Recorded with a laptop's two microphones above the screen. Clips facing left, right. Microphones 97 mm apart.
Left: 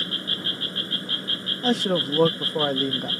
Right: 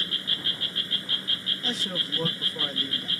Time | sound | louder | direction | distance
0.0 | an insect | left 4 dB | 35° left (ahead or behind) | ?
1.6 | a man speaking | left 12 dB | 60° left (ahead or behind) | ?